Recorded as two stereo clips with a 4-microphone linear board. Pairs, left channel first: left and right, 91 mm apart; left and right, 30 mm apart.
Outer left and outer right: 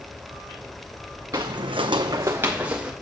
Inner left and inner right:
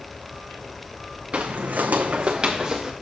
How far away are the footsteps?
About 1.0 m.